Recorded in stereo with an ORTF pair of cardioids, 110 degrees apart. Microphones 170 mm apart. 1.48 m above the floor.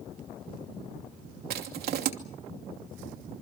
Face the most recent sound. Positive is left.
turn(degrees=-65)